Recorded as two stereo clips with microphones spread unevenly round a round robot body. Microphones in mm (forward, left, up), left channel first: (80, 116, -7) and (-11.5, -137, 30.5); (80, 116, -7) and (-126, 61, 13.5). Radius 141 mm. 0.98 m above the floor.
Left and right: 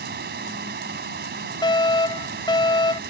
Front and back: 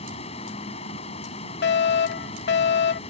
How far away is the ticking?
I don't hear ticking.